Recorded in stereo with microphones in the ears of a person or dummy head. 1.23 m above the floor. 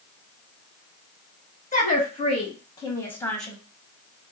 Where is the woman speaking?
40° left (ahead or behind), 2 m; by 3.6 s 5° left (ahead or behind), 1.4 m.